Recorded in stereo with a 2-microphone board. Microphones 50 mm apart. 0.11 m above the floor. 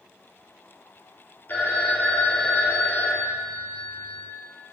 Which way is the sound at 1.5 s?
40° left (ahead or behind).